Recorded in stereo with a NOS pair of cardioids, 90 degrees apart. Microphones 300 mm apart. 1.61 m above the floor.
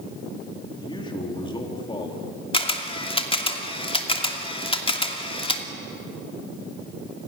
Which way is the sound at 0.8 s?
15° left.